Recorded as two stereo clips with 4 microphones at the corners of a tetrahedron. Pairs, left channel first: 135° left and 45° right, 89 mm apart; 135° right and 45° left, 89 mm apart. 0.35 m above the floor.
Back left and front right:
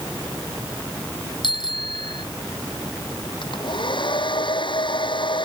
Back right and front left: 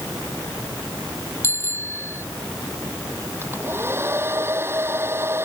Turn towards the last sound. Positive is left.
turn(degrees=105)